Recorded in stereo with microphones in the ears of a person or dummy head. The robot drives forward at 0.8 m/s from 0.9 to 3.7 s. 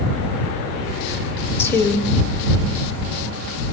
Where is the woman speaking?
15° left (ahead or behind), 3 m; by 2.1 s 20° left (ahead or behind), 2.5 m.